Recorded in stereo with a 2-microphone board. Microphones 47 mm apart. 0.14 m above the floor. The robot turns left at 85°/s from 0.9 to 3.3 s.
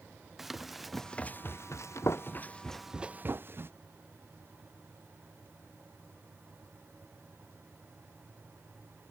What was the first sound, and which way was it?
Running footsteps, 5° right (ahead or behind).